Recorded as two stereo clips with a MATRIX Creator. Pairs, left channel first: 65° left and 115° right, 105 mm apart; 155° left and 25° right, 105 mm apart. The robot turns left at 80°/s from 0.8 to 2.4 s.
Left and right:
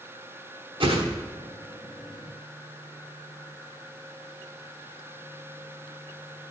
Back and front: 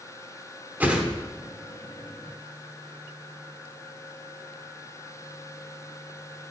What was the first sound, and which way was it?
A whoosh, 90° right.